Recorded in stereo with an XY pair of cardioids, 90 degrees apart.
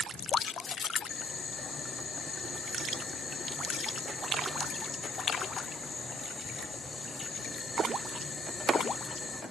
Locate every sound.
1.1 s boiling: 50° left, 9 m